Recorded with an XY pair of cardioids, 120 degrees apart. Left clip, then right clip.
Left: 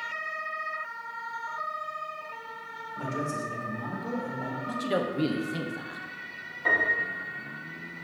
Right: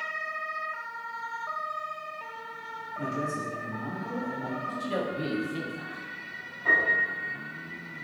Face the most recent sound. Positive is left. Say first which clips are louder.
# right 1 dB
turn(degrees=65)